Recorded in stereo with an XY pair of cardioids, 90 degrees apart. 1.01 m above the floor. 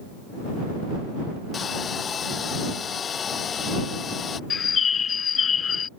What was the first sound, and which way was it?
A hair dryer, 50° left.